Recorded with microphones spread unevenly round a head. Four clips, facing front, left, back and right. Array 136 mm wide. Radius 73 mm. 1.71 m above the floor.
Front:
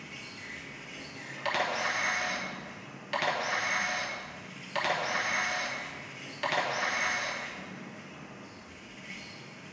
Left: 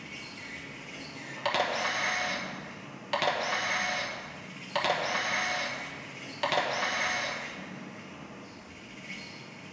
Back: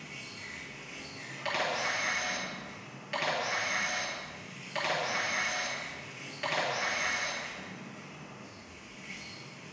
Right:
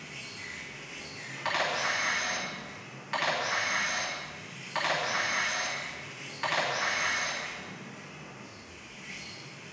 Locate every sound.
0.0 s an insect: 95° left, 2 m
1.4 s a camera shutter: 90° left, 1.2 m